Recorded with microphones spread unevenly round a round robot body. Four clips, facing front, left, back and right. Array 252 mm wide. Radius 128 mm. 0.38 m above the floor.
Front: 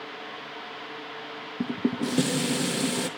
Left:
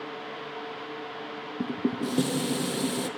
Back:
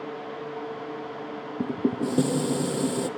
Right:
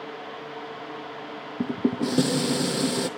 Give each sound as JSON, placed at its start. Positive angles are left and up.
{"t": 1.6, "sound": "dishes clattering", "azimuth_deg": -150, "distance_m": 0.6}